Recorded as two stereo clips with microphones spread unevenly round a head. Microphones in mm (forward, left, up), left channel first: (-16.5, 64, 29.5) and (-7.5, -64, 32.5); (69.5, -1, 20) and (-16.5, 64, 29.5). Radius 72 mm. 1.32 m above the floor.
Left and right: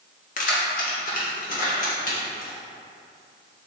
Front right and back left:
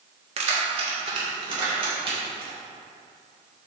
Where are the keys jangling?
120° left, 1.4 m; by 2.5 s 110° left, 4.5 m.